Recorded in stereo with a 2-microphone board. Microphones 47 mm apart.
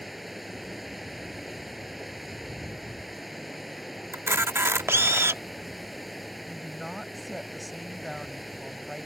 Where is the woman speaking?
Centre (ahead or behind).